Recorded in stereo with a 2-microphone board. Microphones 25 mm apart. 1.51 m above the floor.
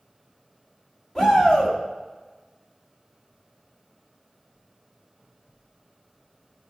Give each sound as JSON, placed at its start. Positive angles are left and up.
{"t": 1.1, "sound": "a shout", "side_deg": 20, "distance_m": 2.0}